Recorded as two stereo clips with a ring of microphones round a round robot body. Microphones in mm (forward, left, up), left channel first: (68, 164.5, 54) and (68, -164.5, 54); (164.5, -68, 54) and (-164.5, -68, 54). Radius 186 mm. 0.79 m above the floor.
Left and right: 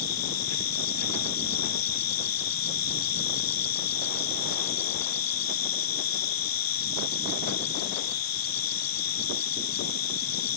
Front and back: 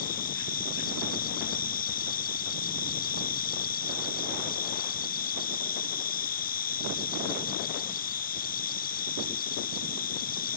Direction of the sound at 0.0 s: 70° left.